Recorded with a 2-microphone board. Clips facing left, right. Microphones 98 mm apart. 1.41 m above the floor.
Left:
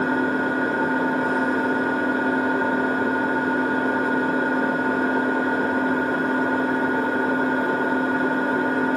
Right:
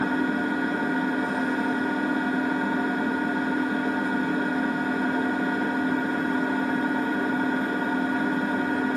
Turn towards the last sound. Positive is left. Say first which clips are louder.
# left 3 dB
turn(degrees=65)  # may be behind; listen again after turning